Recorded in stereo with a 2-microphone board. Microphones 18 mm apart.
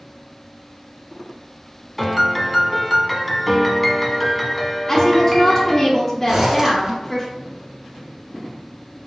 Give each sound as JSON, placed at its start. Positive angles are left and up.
{"t": 2.0, "sound": "a piano", "side_deg": 0, "distance_m": 0.7}
{"t": 4.9, "sound": "a woman speaking", "side_deg": 20, "distance_m": 0.9}
{"t": 6.3, "sound": "a zipper", "side_deg": -35, "distance_m": 1.3}